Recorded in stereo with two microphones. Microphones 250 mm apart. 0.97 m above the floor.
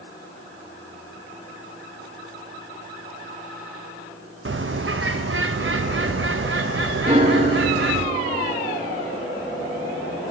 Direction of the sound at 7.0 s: 30° right (ahead or behind).